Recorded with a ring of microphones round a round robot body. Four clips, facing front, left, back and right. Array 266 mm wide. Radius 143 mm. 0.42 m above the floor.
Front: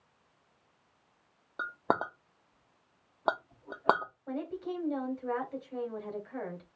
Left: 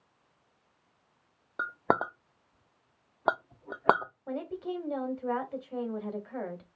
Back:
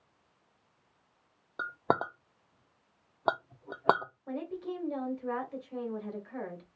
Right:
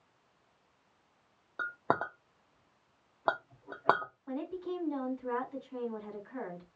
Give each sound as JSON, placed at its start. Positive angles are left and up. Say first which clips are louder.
{"t": 1.6, "sound": "a clink", "louder": "left 4 dB, back 1 dB", "azimuth_deg": 110, "distance_m": 0.6}
{"t": 4.3, "sound": "a woman speaking", "louder": "left 2 dB, even", "azimuth_deg": 100, "distance_m": 2.0}